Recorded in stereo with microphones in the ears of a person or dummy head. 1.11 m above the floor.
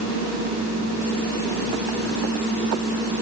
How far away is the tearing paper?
I don't hear tearing paper.